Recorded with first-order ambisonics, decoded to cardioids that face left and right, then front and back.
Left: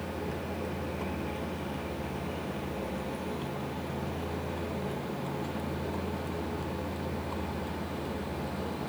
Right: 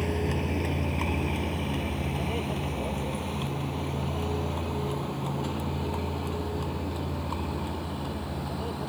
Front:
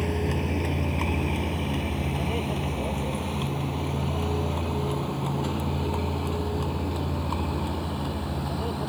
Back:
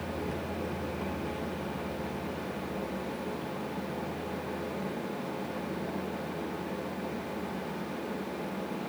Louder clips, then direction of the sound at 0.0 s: Right 6 dB, front 7 dB; 45° right.